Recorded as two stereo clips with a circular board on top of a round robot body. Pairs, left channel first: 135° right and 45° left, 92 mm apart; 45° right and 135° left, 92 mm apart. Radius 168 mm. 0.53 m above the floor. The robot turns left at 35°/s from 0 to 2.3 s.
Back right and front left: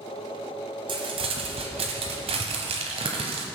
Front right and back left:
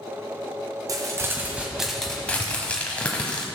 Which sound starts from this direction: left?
Crumpling, at 0.9 s.